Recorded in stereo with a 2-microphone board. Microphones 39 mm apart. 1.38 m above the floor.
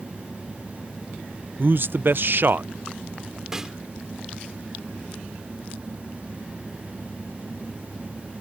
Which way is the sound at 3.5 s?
10° right (ahead or behind).